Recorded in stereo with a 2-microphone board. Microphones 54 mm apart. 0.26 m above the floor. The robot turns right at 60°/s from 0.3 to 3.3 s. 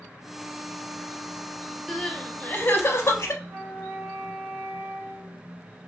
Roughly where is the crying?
Ahead.